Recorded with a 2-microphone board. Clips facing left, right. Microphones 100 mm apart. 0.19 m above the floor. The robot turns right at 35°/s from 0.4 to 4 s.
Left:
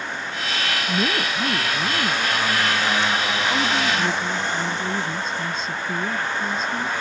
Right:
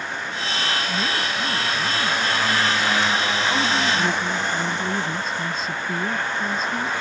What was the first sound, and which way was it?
A woman speaking, 75° left.